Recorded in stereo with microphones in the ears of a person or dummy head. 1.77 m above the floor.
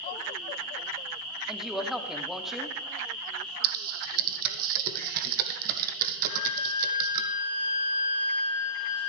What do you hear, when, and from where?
1.5 s a woman speaking: centre (ahead or behind), 0.8 m
3.6 s typing on a keyboard: 50° right (ahead or behind), 0.7 m
6.2 s a flute: 30° left (ahead or behind), 1.7 m